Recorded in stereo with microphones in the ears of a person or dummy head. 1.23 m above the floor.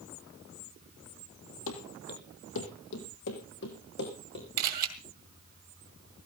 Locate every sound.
1.7 s running footsteps: 65° left (ahead or behind), 2.5 m; by 4.5 s 55° left (ahead or behind), 5.5 m
4.6 s a camera shutter: 45° right (ahead or behind), 2 m